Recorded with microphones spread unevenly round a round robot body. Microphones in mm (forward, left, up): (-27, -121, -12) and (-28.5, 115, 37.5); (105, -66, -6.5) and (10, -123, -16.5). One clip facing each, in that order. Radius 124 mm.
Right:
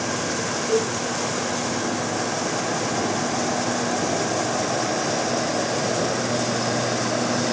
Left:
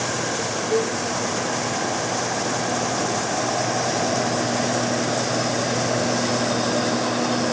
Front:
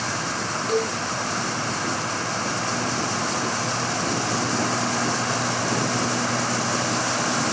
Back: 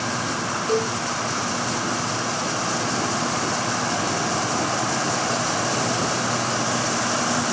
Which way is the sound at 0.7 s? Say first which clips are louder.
Even, back 1 dB; 80° right.